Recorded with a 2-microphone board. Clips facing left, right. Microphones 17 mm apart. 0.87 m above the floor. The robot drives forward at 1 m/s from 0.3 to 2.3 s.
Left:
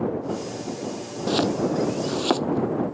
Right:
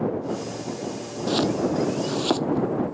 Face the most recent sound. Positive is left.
turn(degrees=30)  # may be behind; listen again after turning